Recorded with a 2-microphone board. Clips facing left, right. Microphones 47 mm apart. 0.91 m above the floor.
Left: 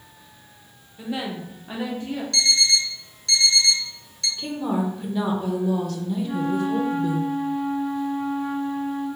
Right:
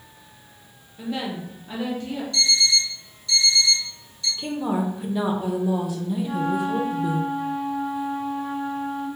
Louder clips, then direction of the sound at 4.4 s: Even; 10° right (ahead or behind).